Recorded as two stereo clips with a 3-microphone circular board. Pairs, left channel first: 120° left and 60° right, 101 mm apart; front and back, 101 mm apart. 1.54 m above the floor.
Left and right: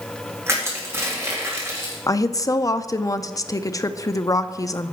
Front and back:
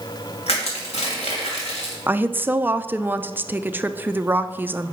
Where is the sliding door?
I don't hear a sliding door.